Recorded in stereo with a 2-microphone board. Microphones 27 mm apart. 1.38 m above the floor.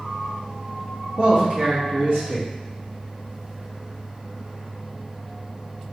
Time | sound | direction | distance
1.2 | a man speaking | 40° right (ahead or behind) | 1.3 m